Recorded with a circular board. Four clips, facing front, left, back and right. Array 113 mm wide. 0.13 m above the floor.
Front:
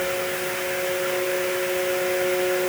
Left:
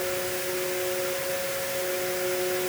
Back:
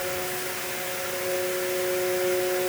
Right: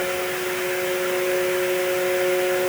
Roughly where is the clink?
No clink in this recording.